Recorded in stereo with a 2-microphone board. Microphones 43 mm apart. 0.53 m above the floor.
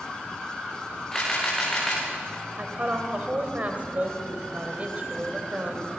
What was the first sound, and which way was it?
A camera shutter, 15° left (ahead or behind).